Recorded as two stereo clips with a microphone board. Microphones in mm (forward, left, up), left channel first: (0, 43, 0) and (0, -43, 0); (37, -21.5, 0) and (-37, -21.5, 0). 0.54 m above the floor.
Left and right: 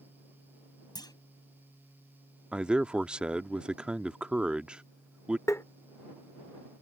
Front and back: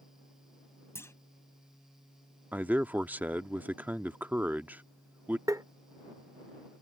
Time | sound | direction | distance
0.9 | a clunk | 55° left | ?
2.5 | a man speaking | 155° right | ?
5.5 | tapping | 145° left | ?